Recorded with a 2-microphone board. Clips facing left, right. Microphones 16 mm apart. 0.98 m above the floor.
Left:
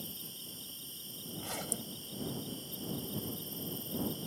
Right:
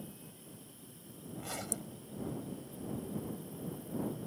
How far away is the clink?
I don't hear a clink.